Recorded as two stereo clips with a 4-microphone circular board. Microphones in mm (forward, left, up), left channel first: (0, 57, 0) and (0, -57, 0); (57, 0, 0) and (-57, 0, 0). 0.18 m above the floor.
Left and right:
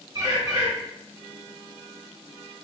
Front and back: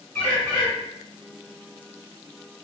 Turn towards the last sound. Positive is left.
turn(degrees=-70)